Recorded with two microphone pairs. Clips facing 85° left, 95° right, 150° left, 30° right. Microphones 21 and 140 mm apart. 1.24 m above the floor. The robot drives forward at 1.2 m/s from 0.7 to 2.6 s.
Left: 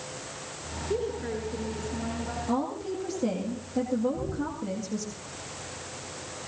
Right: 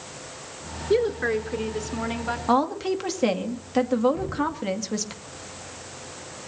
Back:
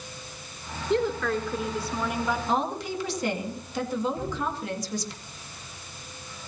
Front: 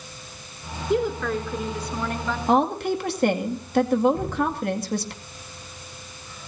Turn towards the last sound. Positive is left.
turn(degrees=-65)